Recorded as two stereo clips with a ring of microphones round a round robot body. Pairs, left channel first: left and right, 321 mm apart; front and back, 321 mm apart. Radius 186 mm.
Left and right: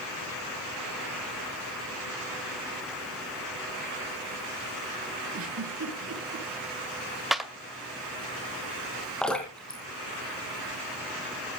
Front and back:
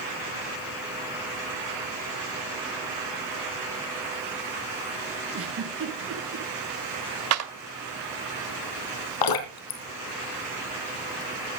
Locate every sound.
5.3 s a giggle: 135° right, 6 m
7.3 s a clap: straight behind, 1.7 m
9.2 s dripping: straight ahead, 2.5 m